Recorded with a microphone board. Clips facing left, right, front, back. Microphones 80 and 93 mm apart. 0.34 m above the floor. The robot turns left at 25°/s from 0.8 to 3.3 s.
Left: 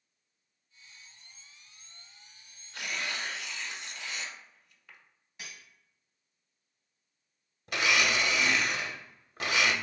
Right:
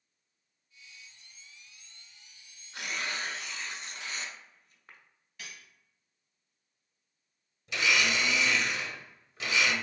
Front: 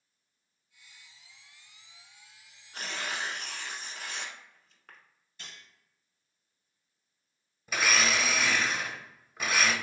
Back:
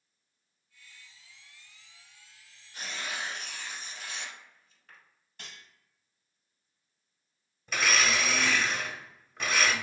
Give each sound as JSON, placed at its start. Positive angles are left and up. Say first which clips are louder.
{"t": 2.7, "sound": "tearing paper", "louder": "even, front 2 dB", "azimuth_deg": -20, "distance_m": 0.7}
{"t": 5.4, "sound": "cutlery clinking", "louder": "even, back 1 dB", "azimuth_deg": 160, "distance_m": 1.4}
{"t": 7.7, "sound": "a blender", "louder": "left 1 dB, even", "azimuth_deg": 85, "distance_m": 0.6}